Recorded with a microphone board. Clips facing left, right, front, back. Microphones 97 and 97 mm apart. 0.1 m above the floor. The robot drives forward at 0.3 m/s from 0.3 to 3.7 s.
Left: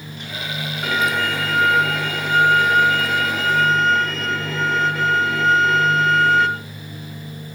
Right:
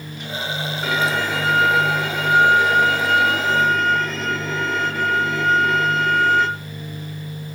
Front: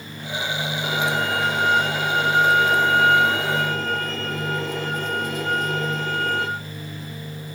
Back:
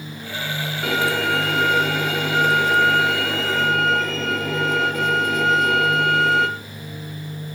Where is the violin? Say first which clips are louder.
Left 1 dB, back 3 dB; straight behind, 3 m.